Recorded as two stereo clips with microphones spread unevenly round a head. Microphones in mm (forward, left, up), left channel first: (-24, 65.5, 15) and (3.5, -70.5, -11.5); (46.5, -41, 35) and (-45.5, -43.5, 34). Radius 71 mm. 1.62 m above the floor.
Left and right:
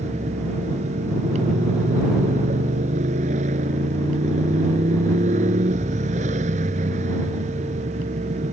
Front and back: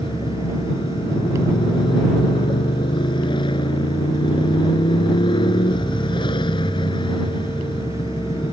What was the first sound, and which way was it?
A motorcycle, 35° right.